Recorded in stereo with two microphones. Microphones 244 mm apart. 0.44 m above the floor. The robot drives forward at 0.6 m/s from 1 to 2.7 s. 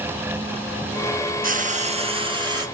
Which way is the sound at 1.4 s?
35° right (ahead or behind).